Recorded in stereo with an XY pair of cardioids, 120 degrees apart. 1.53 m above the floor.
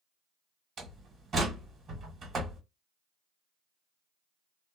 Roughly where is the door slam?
Ahead right.